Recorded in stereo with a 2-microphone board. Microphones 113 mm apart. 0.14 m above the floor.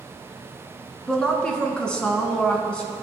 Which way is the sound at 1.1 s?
5° left (ahead or behind).